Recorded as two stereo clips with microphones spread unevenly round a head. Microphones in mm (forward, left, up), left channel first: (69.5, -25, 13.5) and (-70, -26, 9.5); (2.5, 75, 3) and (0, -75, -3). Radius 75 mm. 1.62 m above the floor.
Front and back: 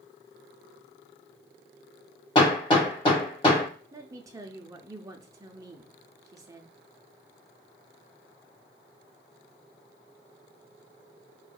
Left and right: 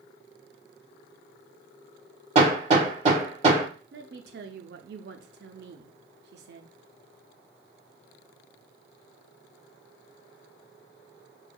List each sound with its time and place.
2.4 s hammering: 50° right, 2 m
3.9 s a woman speaking: 110° right, 0.5 m